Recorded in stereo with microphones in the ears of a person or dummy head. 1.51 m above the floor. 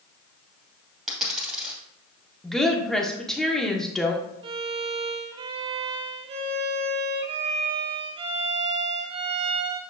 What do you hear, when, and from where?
1.1 s a dropped coin: 5° right (ahead or behind), 2.5 m
2.4 s a woman speaking: centre (ahead or behind), 1.1 m
4.4 s a violin: 30° right (ahead or behind), 0.6 m